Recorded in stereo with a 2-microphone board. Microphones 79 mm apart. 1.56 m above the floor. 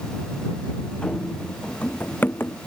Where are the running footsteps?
10° left (ahead or behind); by 2.6 s 30° left (ahead or behind).